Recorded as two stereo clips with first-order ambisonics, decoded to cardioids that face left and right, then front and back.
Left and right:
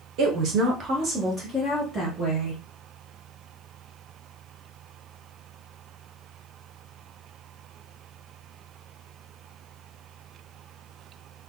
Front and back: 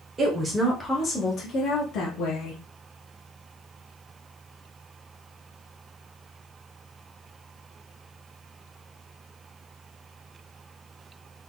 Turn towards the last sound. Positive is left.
turn(degrees=-5)